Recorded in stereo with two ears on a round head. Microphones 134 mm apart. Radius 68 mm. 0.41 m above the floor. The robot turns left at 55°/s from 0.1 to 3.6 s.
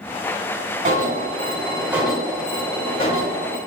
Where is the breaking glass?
I don't hear breaking glass.